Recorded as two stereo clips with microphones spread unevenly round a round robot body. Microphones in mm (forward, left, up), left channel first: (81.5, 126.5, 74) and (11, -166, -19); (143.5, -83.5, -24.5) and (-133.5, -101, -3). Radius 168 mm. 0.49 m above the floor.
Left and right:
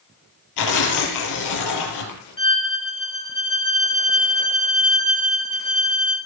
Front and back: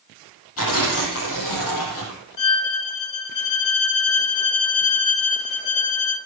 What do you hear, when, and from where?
0.6 s tearing paper: 55° left, 4 m
2.4 s a violin: 5° left, 3.5 m